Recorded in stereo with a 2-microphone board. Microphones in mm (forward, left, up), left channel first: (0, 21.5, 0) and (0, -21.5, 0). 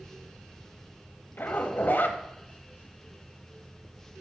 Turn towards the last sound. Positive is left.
turn(degrees=45)  # may be behind; listen again after turning